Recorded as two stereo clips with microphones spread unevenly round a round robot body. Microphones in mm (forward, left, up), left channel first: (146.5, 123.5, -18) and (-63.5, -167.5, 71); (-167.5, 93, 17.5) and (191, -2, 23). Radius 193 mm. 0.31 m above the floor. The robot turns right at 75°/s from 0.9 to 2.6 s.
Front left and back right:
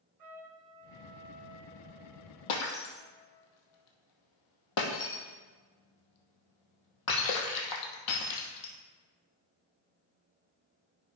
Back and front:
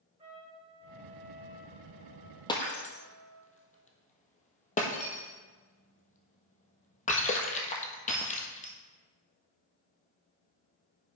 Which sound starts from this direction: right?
A trumpet, at 0.2 s.